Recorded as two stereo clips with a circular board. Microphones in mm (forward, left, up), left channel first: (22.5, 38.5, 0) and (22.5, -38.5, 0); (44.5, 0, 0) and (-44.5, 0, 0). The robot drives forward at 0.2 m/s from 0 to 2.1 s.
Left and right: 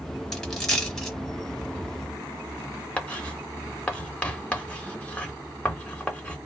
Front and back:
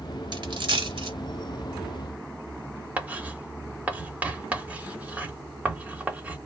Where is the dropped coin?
170° left, 0.9 m.